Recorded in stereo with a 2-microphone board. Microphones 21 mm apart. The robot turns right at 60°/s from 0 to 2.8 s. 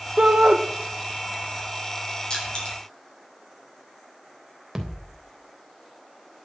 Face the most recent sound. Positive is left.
turn(degrees=-10)  # may be behind; listen again after turning